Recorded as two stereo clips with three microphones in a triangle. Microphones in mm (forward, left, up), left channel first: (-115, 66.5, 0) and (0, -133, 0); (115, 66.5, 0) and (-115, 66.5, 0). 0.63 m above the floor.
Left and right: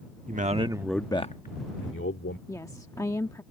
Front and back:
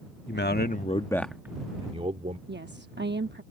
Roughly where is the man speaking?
Ahead.